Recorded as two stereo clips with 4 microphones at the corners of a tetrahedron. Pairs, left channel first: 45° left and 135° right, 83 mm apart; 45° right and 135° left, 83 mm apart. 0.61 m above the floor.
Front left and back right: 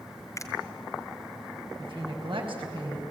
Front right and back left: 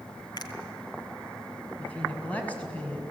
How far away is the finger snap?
About 2.5 m.